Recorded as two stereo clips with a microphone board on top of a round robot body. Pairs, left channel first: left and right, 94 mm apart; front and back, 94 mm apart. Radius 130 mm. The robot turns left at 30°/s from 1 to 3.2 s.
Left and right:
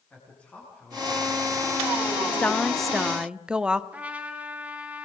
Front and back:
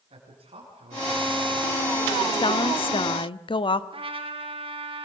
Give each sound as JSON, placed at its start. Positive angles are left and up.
{"t": 0.1, "sound": "a man speaking", "azimuth_deg": 170, "distance_m": 7.0}
{"t": 2.3, "sound": "a woman speaking", "azimuth_deg": 15, "distance_m": 1.3}
{"t": 3.9, "sound": "a trumpet", "azimuth_deg": -165, "distance_m": 3.5}